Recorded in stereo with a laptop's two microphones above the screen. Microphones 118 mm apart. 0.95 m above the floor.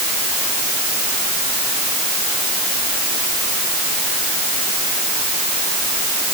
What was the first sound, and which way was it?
Only background noise.